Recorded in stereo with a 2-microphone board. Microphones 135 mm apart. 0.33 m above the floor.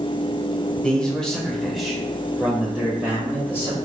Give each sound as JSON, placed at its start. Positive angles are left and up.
{"t": 0.8, "sound": "a man speaking", "side_deg": 5, "distance_m": 1.0}